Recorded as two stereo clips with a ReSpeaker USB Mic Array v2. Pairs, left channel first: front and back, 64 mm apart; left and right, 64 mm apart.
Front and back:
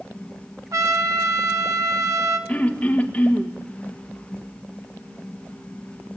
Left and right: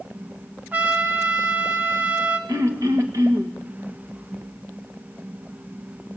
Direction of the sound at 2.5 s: 70° right.